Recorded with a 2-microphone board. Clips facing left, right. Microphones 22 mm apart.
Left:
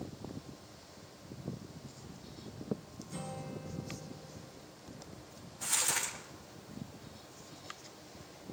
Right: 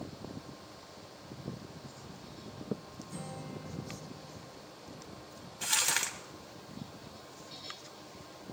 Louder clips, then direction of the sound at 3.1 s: Left 1 dB; 15° left (ahead or behind).